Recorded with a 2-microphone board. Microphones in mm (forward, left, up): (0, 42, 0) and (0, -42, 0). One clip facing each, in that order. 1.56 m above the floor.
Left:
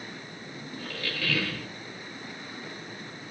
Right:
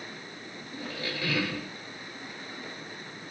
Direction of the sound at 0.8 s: 20° right (ahead or behind).